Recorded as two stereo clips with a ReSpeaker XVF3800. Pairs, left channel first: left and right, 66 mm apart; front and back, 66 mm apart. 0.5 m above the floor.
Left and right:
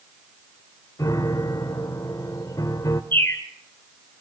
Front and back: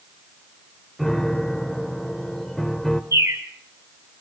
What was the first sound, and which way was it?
A piano, 85° left.